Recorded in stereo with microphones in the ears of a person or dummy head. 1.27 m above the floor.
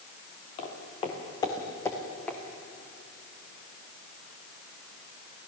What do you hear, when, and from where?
0.6 s footsteps: 35° left (ahead or behind), 4 m; by 2.4 s 5° left (ahead or behind), 3 m